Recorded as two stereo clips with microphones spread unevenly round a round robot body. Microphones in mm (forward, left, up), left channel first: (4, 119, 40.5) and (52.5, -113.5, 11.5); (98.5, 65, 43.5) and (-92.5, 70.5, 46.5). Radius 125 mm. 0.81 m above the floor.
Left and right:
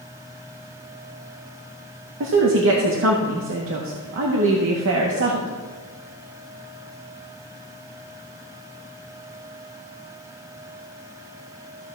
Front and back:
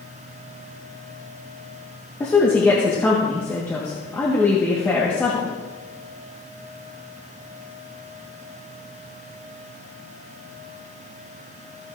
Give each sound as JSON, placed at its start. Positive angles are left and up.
{"t": 2.2, "sound": "a woman speaking", "azimuth_deg": -80, "distance_m": 1.0}